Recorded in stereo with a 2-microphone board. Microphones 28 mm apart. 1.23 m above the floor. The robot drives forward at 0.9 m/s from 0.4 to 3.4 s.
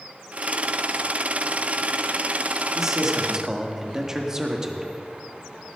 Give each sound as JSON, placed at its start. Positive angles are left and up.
{"t": 2.8, "sound": "a man speaking", "side_deg": -15, "distance_m": 2.5}